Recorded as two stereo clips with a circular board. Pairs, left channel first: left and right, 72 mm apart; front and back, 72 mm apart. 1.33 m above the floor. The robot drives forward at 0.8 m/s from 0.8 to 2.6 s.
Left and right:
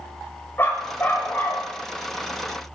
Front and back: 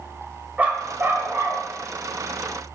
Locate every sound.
0.6 s a dog barking: 125° left, 1.3 m; by 1.6 s 150° left, 1.6 m